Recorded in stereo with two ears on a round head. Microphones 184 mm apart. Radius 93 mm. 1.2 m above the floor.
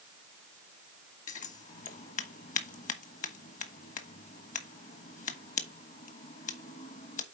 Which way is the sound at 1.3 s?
40° left (ahead or behind).